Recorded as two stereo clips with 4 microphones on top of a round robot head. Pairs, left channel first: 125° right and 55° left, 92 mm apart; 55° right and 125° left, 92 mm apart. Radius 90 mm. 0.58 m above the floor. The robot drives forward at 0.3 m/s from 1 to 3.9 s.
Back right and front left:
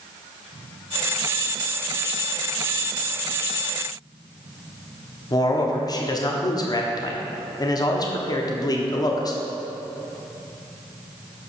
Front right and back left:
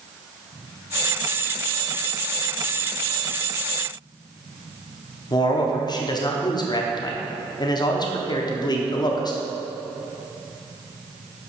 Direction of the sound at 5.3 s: 85° right.